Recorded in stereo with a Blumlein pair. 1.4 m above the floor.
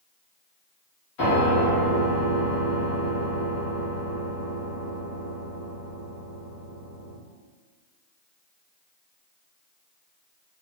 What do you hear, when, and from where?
1.2 s a piano: 40° left, 1.8 m